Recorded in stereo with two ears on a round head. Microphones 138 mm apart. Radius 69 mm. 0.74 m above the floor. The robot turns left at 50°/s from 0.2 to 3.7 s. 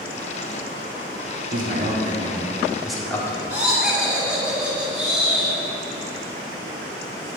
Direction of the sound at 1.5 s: 110° right.